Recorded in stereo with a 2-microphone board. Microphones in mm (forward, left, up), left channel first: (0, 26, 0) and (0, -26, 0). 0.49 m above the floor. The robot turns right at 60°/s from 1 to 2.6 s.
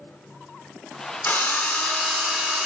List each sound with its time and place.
1.2 s a drill: 115° left, 1.4 m; by 2.7 s 165° right, 1.4 m